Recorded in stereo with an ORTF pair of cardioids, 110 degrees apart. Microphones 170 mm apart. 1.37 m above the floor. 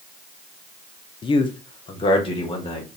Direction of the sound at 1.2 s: 30° left.